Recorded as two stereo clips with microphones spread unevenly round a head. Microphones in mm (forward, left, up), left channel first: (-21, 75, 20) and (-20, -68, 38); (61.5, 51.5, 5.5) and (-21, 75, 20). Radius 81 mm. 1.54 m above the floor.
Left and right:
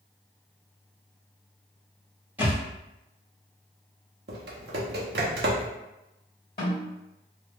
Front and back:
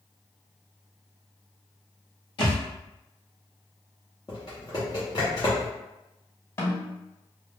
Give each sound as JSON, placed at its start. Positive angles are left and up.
{"t": 2.4, "sound": "a thud", "azimuth_deg": -30, "distance_m": 1.9}
{"t": 4.3, "sound": "typing on a keyboard", "azimuth_deg": -85, "distance_m": 0.6}
{"t": 6.6, "sound": "a snare drum", "azimuth_deg": 35, "distance_m": 1.6}